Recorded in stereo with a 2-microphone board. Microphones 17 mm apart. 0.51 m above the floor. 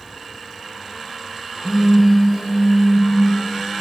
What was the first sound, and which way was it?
A phone buzzing, 25° right (ahead or behind).